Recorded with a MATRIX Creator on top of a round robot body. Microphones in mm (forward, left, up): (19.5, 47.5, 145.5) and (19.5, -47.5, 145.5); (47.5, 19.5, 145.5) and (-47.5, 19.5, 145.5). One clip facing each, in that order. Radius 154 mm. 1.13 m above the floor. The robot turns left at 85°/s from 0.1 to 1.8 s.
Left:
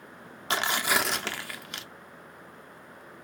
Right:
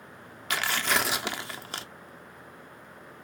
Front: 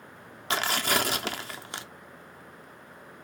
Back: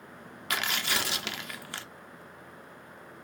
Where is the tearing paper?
45° left, 0.8 m; by 1.9 s 65° right, 0.8 m.